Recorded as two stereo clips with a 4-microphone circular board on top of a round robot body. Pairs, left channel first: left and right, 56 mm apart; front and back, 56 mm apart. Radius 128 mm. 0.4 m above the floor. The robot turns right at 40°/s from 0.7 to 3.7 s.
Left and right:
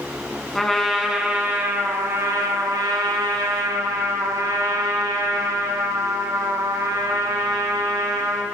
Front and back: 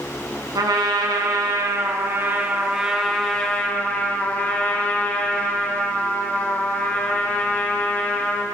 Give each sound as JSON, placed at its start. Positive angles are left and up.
{"t": 0.6, "sound": "a trumpet", "azimuth_deg": 175, "distance_m": 1.3}